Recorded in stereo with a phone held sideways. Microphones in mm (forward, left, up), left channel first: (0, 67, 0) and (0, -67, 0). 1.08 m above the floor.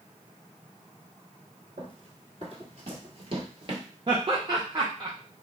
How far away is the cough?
I don't hear a cough.